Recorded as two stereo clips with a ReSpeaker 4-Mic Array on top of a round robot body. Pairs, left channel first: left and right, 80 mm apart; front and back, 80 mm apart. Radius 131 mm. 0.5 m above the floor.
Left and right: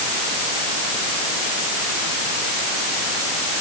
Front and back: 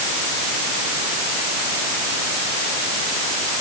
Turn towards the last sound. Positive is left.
No sound to turn to.